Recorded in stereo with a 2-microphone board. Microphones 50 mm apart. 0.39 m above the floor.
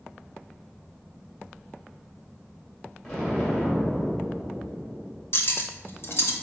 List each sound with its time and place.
3.0 s an explosion: 20° left (ahead or behind), 2 m
5.3 s cutlery clinking: 55° left (ahead or behind), 0.6 m